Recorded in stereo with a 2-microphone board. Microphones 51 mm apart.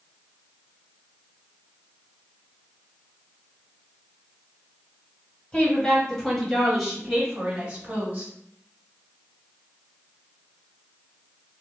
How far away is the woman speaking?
About 1.5 m.